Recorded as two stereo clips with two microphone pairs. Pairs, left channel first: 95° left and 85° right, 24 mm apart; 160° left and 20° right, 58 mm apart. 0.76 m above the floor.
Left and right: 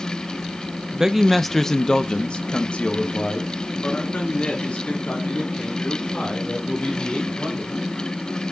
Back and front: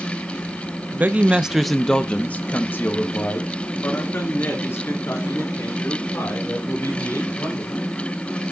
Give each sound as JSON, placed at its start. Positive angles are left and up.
{"t": 0.9, "sound": "a man speaking", "azimuth_deg": -35, "distance_m": 0.6}